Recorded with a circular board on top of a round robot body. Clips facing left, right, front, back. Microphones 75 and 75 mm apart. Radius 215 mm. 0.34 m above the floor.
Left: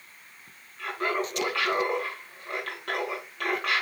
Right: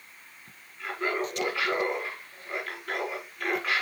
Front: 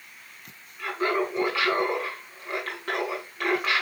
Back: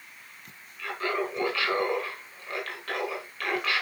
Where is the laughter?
70° left, 6.5 m.